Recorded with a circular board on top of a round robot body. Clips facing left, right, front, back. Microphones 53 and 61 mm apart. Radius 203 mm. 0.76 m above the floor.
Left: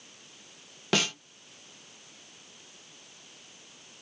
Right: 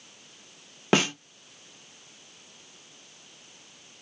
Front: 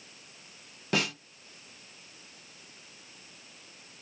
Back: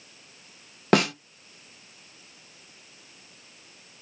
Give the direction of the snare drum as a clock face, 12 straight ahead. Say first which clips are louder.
Right 5 dB, back 9 dB; 5 o'clock.